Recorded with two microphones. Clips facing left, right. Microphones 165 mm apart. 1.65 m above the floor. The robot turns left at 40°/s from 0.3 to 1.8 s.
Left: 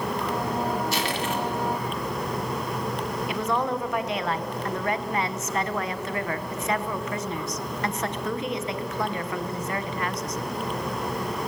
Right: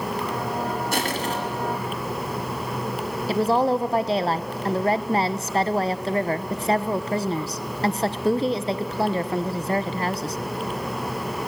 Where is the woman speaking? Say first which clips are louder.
Right 8 dB; 30° right (ahead or behind), 1.0 m.